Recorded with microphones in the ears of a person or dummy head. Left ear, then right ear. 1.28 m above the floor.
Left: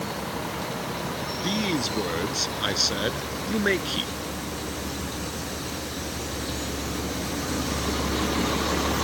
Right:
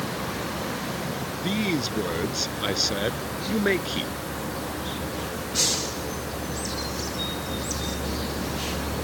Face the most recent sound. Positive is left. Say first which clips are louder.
# even
turn(degrees=15)  # may be behind; listen again after turning